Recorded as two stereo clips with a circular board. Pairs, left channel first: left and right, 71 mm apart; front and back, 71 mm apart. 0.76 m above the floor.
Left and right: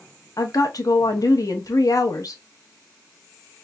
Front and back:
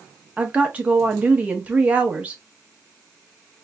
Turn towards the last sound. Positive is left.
turn(degrees=115)